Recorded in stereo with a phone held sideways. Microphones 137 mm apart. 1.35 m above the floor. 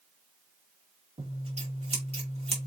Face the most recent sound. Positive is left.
turn(degrees=-50)  # may be behind; listen again after turning